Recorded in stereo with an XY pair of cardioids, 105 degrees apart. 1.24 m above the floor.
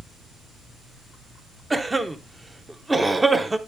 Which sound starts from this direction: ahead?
A cough, at 1.7 s.